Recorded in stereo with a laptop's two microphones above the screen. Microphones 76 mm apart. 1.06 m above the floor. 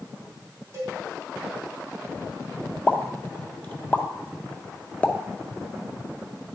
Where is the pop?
20° left (ahead or behind), 0.6 m.